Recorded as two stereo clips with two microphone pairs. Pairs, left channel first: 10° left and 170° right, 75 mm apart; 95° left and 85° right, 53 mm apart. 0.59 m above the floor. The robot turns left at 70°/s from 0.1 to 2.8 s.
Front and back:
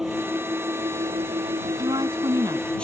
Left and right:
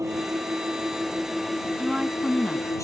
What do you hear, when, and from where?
0.0 s an engine running: 85° right; by 2.9 s 85° left
1.8 s a woman speaking: 145° right; by 2.7 s 155° left